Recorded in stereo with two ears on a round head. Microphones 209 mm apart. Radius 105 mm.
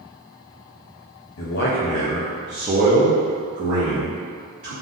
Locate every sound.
1.4 s a man speaking: 55° left (ahead or behind), 0.6 m; by 4.7 s 60° right (ahead or behind), 1.6 m